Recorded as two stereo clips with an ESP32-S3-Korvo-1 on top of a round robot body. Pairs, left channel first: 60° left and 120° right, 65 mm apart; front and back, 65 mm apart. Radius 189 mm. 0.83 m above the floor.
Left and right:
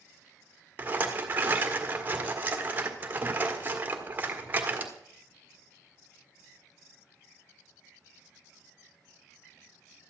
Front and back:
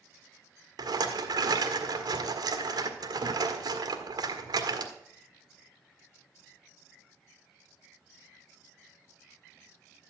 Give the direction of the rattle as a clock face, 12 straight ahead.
6 o'clock.